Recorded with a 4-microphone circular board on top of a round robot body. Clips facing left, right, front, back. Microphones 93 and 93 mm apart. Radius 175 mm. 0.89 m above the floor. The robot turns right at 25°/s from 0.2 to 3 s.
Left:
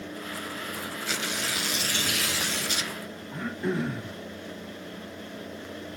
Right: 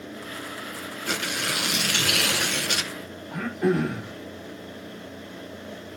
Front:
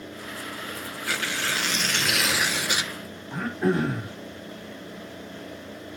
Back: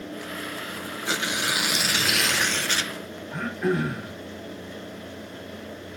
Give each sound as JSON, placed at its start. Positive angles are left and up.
{"t": 1.1, "sound": "tearing paper", "azimuth_deg": -115, "distance_m": 1.0}
{"t": 3.3, "sound": "throat clearing", "azimuth_deg": -65, "distance_m": 1.5}